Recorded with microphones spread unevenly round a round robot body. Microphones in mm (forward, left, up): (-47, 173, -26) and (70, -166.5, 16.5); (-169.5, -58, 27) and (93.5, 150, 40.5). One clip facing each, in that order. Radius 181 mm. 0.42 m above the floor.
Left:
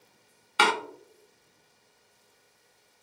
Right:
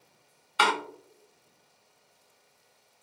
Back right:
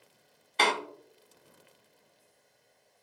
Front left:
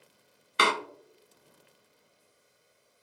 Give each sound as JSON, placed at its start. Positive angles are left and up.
{"t": 0.6, "sound": "a door slam", "azimuth_deg": 110, "distance_m": 0.5}